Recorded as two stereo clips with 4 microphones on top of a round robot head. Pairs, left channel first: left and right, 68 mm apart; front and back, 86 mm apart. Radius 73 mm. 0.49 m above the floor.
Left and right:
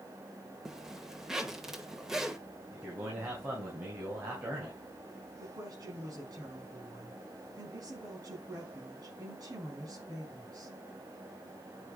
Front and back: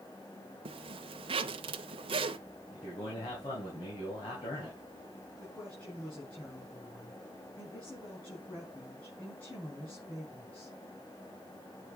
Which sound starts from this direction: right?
A woman speaking, at 5.4 s.